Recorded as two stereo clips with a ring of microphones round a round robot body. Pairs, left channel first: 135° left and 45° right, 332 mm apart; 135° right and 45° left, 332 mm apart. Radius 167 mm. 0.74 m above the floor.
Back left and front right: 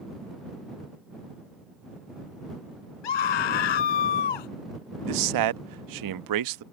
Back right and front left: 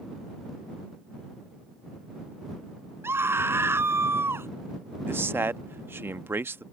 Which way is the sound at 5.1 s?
40° right.